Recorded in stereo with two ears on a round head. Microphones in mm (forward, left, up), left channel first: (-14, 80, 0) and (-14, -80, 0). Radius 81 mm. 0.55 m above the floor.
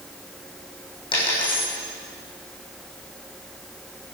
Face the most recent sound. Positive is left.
turn(degrees=30)  # may be behind; listen again after turning